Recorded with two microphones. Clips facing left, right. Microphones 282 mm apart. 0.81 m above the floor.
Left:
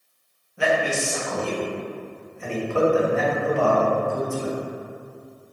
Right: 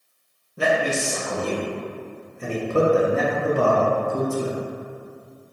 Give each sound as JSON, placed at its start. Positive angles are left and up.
{"t": 0.6, "sound": "a man speaking", "side_deg": -45, "distance_m": 0.6}